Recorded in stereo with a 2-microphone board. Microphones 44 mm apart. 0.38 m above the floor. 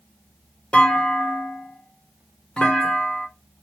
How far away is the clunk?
About 0.9 m.